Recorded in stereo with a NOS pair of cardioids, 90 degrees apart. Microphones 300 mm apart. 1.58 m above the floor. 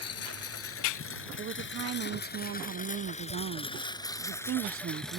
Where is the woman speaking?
45° right.